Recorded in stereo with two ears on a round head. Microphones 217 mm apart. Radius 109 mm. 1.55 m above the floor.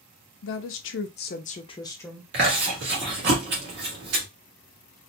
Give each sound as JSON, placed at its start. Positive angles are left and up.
{"t": 0.4, "sound": "a woman speaking", "side_deg": 55, "distance_m": 0.8}
{"t": 2.3, "sound": "chewing", "side_deg": -50, "distance_m": 1.7}